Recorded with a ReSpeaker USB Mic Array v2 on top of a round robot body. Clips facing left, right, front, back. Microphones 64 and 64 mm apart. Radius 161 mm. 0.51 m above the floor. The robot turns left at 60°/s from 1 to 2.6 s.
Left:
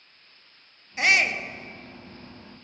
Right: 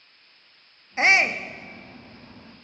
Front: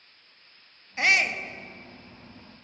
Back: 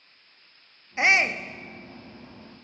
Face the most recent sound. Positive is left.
turn(degrees=140)